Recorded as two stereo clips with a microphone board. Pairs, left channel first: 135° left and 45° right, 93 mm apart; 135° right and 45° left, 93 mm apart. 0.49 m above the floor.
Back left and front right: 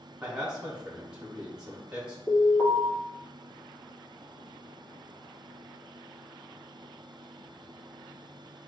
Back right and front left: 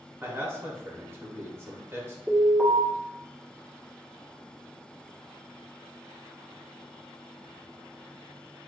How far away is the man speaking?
About 0.9 m.